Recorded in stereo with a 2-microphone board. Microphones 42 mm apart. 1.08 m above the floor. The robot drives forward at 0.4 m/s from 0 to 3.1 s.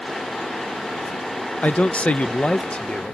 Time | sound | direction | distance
1.6 | a man speaking | 35° left (ahead or behind) | ?